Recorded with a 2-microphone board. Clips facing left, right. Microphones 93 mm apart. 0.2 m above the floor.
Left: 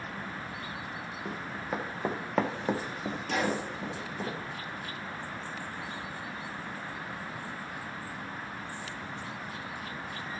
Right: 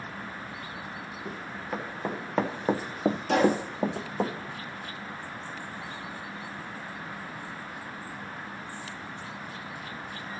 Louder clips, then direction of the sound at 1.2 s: Even; 15° left (ahead or behind).